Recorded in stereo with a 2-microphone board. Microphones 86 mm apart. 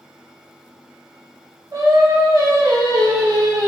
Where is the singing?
45° right (ahead or behind), 0.7 m.